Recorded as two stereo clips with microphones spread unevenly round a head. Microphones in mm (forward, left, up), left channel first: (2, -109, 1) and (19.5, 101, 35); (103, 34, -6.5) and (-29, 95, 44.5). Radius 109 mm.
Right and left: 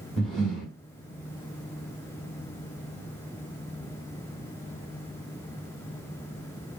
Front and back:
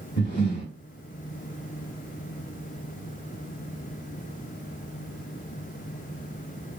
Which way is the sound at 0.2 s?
5° left.